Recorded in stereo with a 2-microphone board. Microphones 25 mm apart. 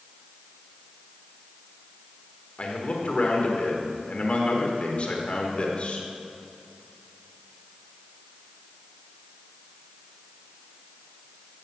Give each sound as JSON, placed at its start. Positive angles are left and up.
{"t": 2.6, "sound": "a man speaking", "side_deg": 45, "distance_m": 1.5}